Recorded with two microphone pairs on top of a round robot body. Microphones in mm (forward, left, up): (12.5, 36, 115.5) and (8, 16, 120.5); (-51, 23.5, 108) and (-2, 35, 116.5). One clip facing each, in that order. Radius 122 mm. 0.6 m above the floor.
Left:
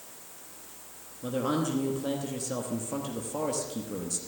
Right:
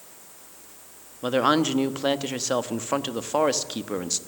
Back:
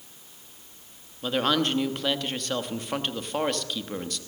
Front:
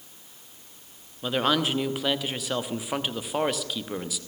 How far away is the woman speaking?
About 1.2 m.